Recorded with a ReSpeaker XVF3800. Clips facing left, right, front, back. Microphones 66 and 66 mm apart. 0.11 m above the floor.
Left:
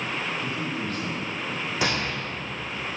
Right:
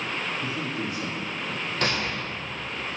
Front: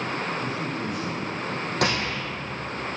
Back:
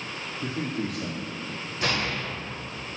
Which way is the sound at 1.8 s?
10° left.